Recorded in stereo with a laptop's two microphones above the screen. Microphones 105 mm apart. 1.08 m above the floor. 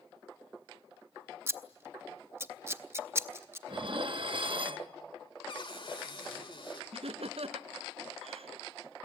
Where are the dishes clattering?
55° right (ahead or behind), 0.8 m.